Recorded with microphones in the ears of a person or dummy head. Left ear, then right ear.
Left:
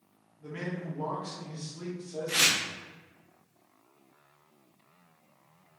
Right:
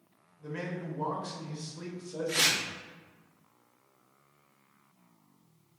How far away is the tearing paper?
About 0.8 m.